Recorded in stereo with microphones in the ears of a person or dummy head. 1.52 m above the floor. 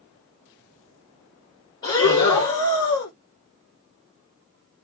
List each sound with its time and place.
1.8 s breathing: 20° left (ahead or behind), 0.7 m